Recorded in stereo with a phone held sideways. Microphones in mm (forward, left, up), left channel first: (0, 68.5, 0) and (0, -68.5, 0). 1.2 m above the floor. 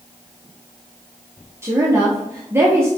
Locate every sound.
1.6 s a woman speaking: 15° right (ahead or behind), 0.6 m